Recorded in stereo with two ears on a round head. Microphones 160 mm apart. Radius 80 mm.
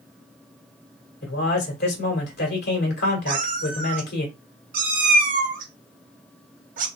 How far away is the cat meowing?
About 0.9 m.